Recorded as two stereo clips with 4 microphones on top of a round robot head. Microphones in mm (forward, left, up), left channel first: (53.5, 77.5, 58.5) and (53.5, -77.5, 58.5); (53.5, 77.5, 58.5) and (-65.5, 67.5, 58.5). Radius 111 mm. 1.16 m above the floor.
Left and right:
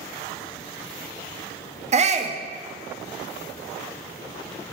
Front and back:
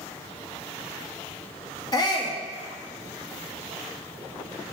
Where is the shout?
50° right, 0.7 m.